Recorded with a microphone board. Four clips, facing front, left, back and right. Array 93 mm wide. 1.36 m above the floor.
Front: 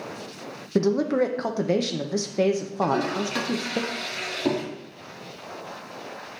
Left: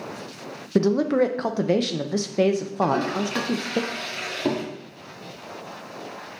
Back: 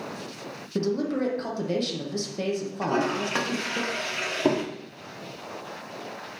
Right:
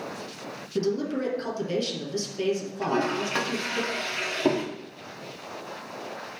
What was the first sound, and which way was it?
A man speaking, 60° left.